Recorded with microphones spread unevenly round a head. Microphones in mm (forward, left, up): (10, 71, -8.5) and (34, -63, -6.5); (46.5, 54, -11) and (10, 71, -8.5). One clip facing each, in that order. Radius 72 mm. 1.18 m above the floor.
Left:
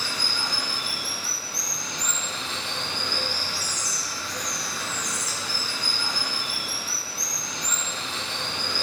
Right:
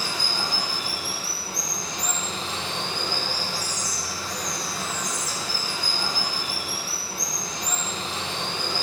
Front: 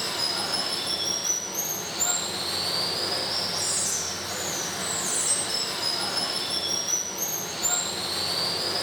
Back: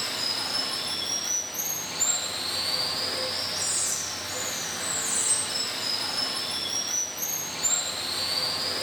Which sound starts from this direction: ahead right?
Running water, at 0.0 s.